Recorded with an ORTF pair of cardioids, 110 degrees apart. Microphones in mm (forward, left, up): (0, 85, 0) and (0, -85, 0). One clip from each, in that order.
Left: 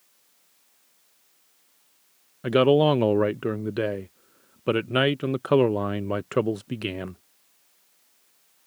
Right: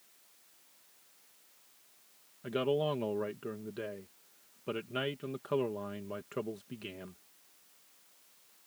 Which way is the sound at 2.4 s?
65° left.